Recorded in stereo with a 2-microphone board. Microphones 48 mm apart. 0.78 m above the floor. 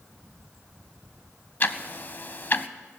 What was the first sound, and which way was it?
Ticking, 40° left (ahead or behind).